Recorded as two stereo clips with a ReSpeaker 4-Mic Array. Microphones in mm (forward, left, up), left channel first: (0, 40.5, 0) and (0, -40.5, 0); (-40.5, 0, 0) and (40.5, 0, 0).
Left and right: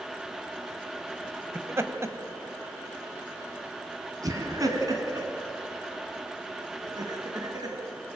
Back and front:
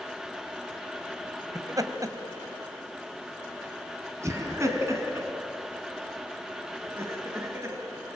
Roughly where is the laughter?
Ahead right.